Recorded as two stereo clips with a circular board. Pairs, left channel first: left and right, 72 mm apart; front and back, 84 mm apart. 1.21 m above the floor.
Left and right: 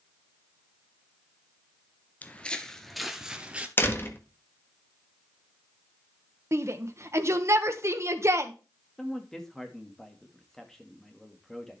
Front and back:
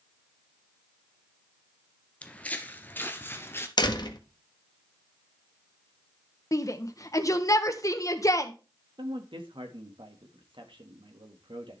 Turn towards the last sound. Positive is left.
turn(degrees=175)